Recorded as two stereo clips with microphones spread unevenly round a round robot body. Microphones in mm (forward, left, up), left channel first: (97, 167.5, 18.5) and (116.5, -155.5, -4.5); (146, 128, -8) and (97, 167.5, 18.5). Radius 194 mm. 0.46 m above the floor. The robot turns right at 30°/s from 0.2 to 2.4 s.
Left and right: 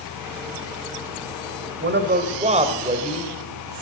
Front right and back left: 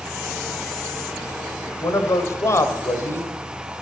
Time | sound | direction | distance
1.8 | a man speaking | 40° right | 2.5 m